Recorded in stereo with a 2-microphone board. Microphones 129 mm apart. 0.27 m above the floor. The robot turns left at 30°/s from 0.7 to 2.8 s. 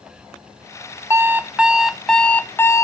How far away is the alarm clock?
About 0.6 m.